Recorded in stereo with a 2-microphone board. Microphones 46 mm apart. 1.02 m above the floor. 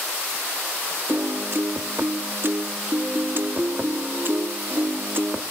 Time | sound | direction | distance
1.1 | a piano | 45° right (ahead or behind) | 0.7 m